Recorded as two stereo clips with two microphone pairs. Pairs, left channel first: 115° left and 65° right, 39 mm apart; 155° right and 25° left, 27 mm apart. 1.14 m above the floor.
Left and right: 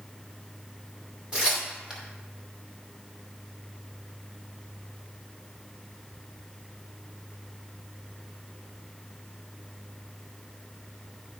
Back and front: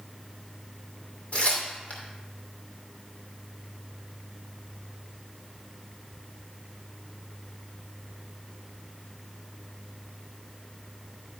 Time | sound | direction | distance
1.3 | tearing paper | 135° right | 2.5 m